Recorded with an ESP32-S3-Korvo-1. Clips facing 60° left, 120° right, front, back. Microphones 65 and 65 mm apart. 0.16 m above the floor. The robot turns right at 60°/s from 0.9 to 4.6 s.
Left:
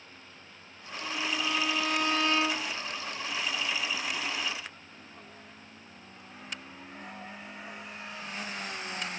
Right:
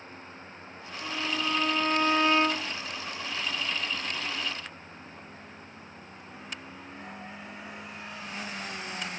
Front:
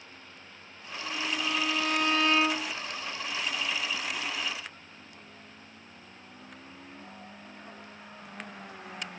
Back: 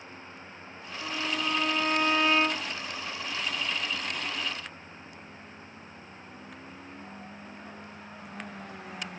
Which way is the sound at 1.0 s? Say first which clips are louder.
Right 1 dB, back 1 dB; 160° left.